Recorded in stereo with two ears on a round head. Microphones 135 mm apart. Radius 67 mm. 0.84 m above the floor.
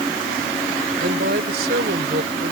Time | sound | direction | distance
1.0 | a woman speaking | 70° right (ahead or behind) | ?